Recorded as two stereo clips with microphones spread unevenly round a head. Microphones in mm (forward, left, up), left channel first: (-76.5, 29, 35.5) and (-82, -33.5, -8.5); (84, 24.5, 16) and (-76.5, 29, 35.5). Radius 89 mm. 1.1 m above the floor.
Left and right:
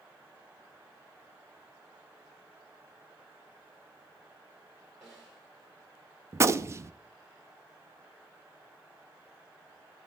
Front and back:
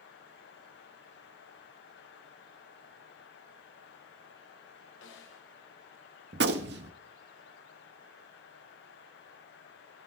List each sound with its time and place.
5.0 s a snare drum: straight ahead, 2.5 m
6.3 s a gunshot: 150° right, 0.9 m